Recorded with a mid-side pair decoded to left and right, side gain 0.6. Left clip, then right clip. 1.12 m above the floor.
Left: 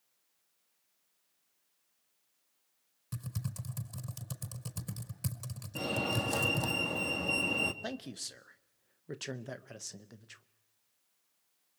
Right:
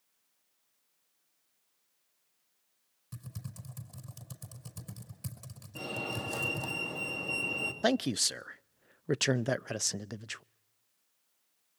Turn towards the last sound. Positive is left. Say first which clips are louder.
# right 12 dB
turn(degrees=-55)